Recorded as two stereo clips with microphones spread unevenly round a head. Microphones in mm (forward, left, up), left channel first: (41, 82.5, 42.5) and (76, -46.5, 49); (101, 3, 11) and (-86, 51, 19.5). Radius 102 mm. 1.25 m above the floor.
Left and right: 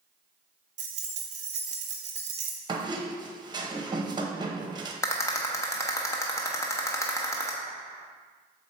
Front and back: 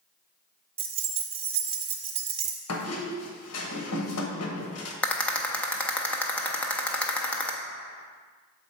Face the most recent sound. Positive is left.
turn(degrees=65)